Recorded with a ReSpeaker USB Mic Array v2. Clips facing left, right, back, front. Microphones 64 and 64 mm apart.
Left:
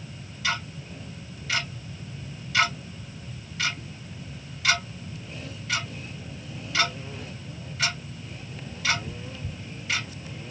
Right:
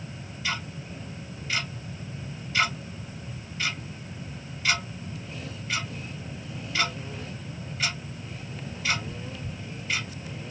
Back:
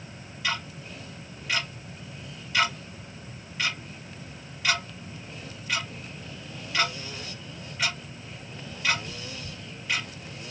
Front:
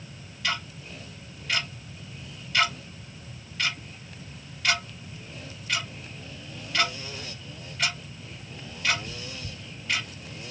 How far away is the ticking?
About 1.9 m.